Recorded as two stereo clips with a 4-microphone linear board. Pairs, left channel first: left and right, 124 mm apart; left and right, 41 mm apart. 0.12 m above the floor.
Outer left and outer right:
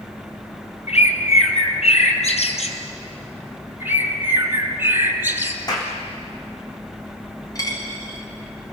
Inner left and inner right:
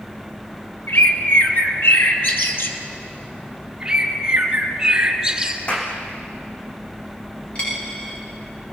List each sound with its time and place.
0.9 s a bird: 65° left (ahead or behind), 2.5 m
3.8 s a bird: 20° right (ahead or behind), 2 m
5.7 s a clap: 35° left (ahead or behind), 5.5 m
7.5 s a dropped coin: 30° left (ahead or behind), 7.5 m